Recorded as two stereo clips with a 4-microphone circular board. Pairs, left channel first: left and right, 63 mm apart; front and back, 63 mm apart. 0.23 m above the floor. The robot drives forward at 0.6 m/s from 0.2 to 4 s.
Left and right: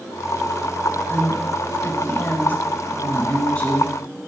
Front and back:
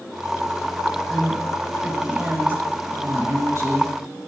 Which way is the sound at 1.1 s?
80° left.